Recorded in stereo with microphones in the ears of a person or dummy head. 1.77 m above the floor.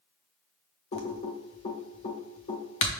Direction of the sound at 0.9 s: 35° left (ahead or behind).